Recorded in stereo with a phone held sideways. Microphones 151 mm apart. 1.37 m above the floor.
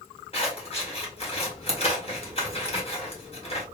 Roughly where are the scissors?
Left.